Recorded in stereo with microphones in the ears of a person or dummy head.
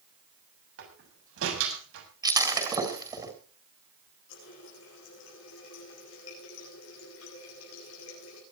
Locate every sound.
0.8 s a door slam: 85° right, 6.5 m
2.2 s breaking glass: 20° right (ahead or behind), 4 m
4.3 s a running tap: 75° left (ahead or behind), 8.5 m